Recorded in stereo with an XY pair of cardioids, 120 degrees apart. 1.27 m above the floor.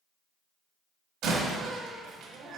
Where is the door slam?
70° right, 1.5 m.